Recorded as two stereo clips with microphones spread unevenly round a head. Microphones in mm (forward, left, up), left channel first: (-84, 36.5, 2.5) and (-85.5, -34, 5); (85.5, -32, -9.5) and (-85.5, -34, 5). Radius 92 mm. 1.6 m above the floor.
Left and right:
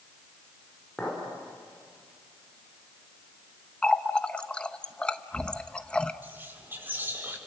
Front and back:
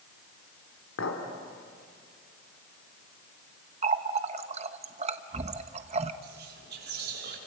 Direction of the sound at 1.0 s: 5° left.